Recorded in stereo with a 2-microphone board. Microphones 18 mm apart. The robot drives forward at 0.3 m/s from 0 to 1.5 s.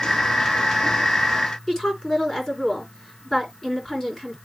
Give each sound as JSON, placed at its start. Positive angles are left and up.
{"t": 1.7, "sound": "a woman speaking", "side_deg": 15, "distance_m": 3.0}